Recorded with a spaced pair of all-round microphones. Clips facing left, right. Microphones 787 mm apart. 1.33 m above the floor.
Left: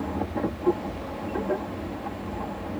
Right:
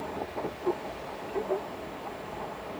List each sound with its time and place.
0.0 s a machine running: 80° left